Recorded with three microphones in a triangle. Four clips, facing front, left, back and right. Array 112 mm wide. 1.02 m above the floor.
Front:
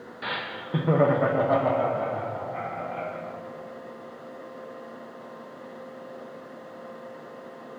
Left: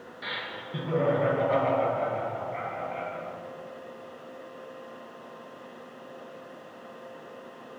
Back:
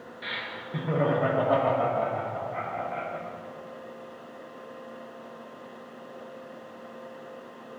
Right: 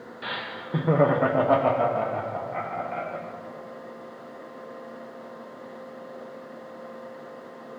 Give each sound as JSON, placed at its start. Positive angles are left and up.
{"t": 0.2, "sound": "laughter", "azimuth_deg": -25, "distance_m": 0.7}